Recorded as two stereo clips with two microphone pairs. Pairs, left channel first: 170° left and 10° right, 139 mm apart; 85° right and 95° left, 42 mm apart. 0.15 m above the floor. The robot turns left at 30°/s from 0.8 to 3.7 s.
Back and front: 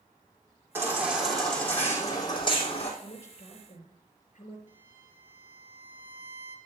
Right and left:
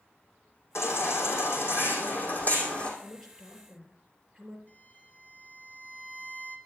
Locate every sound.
0.8 s a baby crying: 85° right, 3 m; by 2.9 s 145° right, 3 m
3.0 s a woman speaking: 165° right, 3 m; by 4.6 s 175° left, 3 m
4.7 s a violin: 75° right, 1.9 m